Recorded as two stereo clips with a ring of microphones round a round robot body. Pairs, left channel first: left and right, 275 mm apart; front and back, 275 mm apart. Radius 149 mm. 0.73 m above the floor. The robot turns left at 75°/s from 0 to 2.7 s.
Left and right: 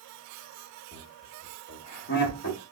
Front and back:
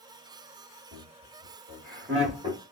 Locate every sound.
0.9 s laughter: 130° right, 1.7 m; by 2.6 s 105° left, 1.7 m